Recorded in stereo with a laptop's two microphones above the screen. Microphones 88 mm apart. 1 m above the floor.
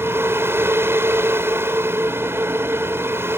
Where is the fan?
25° right (ahead or behind).